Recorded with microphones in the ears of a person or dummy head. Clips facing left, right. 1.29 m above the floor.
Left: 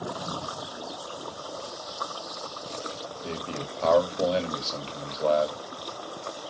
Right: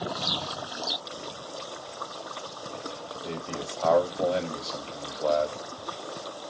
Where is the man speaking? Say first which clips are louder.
Even; 30° left (ahead or behind), 0.8 m.